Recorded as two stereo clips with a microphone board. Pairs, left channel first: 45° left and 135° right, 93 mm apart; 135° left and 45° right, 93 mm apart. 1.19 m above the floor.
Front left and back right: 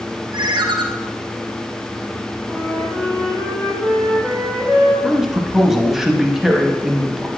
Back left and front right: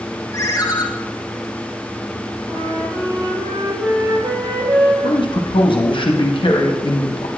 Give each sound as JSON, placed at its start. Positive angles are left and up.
{"t": 0.3, "sound": "a ringtone", "azimuth_deg": -175, "distance_m": 0.6}
{"t": 2.5, "sound": "a flute", "azimuth_deg": -45, "distance_m": 2.5}
{"t": 5.0, "sound": "a man speaking", "azimuth_deg": 140, "distance_m": 0.8}